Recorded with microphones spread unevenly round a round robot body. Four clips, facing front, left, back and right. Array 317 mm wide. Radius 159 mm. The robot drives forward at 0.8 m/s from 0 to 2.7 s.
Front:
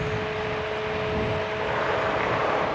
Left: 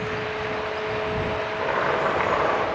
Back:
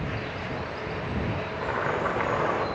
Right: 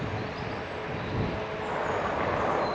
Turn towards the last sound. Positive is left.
turn(degrees=140)